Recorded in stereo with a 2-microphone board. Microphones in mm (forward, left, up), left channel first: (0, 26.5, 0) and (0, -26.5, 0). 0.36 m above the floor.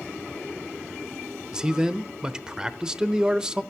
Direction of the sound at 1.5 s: 10° right (ahead or behind).